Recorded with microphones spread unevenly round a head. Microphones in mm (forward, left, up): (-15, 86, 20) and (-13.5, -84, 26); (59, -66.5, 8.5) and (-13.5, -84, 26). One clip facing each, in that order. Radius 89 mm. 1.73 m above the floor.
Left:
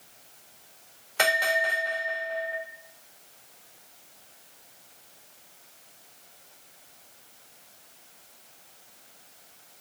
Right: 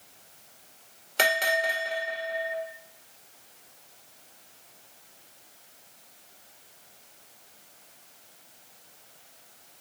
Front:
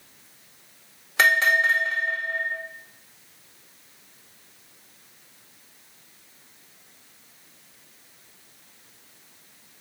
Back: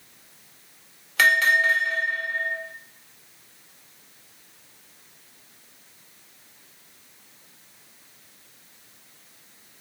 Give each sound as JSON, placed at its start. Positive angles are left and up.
{"t": 1.2, "sound": "a bell", "azimuth_deg": -55, "distance_m": 1.9}